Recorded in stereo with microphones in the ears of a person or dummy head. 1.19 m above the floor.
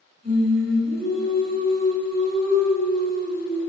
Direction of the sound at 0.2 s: 65° right (ahead or behind).